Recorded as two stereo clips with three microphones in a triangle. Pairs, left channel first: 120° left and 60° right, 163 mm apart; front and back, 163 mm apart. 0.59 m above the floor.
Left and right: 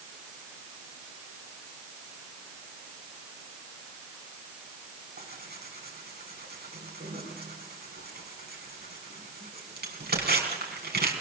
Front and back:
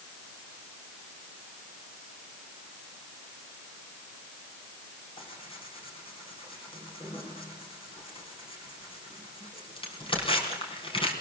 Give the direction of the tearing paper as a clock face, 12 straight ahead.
2 o'clock.